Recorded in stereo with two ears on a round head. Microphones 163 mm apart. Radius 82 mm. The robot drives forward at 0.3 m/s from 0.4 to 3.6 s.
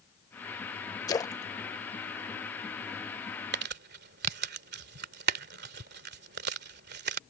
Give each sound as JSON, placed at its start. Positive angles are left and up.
{"t": 1.1, "sound": "a splash", "side_deg": 20}
{"t": 3.5, "sound": "crumpling", "side_deg": -60}